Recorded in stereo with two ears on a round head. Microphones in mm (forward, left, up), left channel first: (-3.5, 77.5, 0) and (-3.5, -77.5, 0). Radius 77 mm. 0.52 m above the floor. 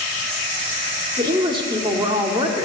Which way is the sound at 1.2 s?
25° right (ahead or behind).